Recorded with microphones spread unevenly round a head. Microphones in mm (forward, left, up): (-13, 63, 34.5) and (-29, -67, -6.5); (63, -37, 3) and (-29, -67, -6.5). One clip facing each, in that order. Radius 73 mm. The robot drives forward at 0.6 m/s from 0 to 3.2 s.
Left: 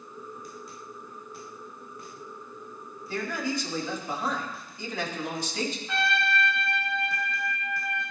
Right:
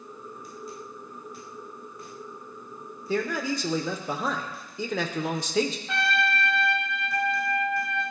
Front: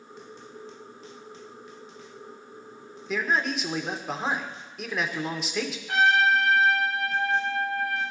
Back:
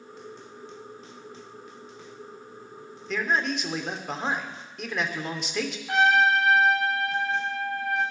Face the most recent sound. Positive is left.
turn(degrees=-130)